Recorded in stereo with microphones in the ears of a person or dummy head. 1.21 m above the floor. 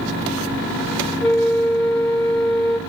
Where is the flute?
10° left (ahead or behind), 1.1 m.